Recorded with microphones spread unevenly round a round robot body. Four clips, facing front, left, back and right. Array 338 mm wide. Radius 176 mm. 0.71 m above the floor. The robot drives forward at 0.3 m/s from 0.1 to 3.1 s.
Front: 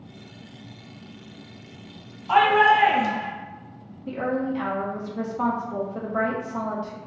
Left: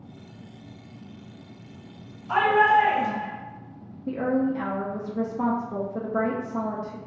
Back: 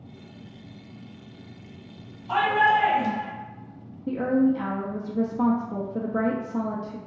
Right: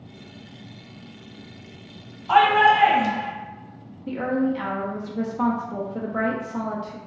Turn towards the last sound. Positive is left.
turn(degrees=175)